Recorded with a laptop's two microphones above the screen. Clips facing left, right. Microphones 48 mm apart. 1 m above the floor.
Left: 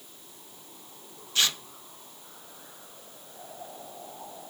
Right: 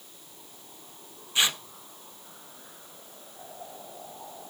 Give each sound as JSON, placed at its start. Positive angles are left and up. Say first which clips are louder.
{"t": 1.4, "sound": "tearing paper", "louder": "right 1 dB", "side_deg": -20, "distance_m": 0.7}